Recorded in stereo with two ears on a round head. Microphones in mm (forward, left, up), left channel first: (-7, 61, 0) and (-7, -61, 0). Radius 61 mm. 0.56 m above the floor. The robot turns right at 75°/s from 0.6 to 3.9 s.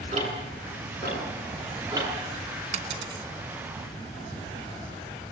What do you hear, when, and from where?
0.1 s ticking: 50° right (ahead or behind), 8 m; by 2.1 s 15° right (ahead or behind), 8 m
2.7 s a dropped coin: 60° right (ahead or behind), 2.0 m; by 3.3 s 20° right (ahead or behind), 2.0 m